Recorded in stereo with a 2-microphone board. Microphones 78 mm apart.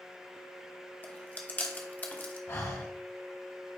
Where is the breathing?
35° left (ahead or behind), 1.5 m.